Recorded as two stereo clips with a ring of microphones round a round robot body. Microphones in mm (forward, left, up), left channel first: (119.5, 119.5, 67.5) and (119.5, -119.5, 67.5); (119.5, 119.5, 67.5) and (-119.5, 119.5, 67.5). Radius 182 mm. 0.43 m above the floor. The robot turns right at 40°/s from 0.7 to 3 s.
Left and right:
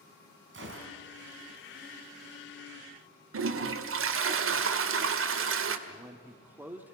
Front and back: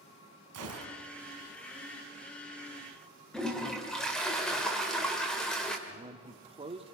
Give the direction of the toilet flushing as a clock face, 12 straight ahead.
3 o'clock.